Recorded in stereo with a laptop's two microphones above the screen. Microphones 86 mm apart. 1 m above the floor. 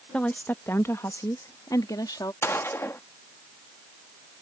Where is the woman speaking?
15° left (ahead or behind); by 2.3 s 50° left (ahead or behind).